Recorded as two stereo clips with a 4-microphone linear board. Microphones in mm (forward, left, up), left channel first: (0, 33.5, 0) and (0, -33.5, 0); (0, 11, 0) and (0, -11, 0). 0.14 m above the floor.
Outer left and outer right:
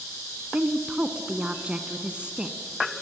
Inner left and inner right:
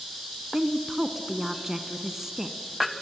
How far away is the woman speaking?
About 1.1 m.